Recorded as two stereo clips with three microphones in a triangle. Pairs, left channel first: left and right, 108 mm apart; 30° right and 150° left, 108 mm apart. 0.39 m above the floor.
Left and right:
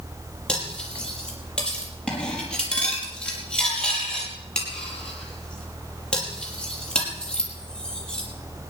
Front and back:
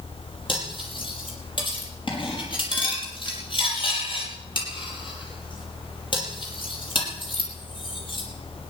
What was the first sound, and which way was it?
Cutlery clinking, 10° left.